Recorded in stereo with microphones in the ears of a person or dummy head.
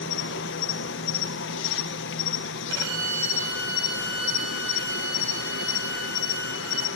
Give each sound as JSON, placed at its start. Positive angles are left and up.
{"t": 0.0, "sound": "an insect", "side_deg": 60, "distance_m": 1.3}
{"t": 2.7, "sound": "a violin", "side_deg": -70, "distance_m": 5.0}